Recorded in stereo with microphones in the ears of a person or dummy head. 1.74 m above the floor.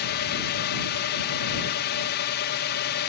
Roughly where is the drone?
Left.